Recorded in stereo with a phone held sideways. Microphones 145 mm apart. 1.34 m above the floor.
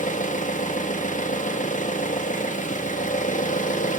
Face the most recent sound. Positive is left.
turn(degrees=60)  # may be behind; listen again after turning